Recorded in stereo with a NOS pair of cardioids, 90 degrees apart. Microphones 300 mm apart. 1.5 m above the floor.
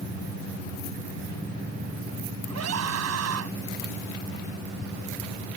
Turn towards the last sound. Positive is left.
turn(degrees=-55)